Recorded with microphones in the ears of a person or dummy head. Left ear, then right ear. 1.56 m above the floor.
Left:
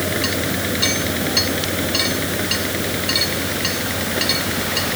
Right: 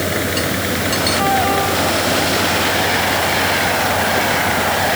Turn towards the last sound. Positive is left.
turn(degrees=-20)  # may be behind; listen again after turning